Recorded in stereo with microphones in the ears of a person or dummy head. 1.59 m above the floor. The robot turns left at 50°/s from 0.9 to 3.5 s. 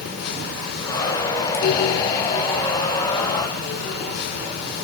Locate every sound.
Only background noise.